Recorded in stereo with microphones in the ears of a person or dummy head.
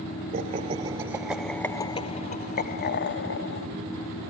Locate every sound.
0.3 s laughter: 35° right (ahead or behind), 0.9 m; by 3.7 s 70° left (ahead or behind), 1.2 m